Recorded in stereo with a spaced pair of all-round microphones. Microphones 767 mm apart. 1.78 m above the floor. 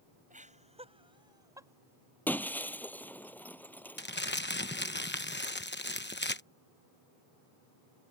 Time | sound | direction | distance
0.3 | laughter | 10° right (ahead or behind) | ?
2.3 | breaking glass | centre (ahead or behind) | ?
4.0 | crumpling | 15° left (ahead or behind) | ?